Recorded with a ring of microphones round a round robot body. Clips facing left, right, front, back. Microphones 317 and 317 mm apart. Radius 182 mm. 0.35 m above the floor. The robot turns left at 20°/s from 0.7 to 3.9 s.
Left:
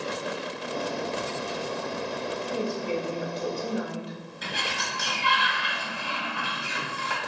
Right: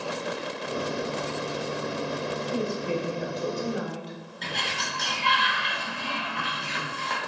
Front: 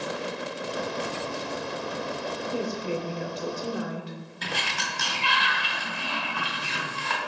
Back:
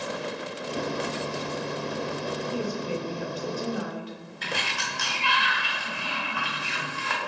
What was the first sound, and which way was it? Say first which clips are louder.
A woman speaking: even, front 3 dB; 20° left.